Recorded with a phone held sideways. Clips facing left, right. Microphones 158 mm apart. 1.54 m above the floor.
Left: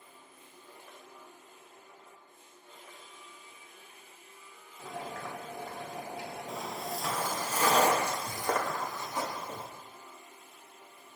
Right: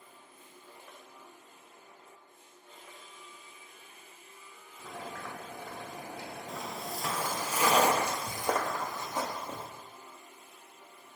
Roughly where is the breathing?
No breathing in this recording.